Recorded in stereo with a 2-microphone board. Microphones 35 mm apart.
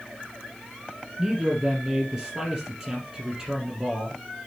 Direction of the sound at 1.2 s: 10° right (ahead or behind).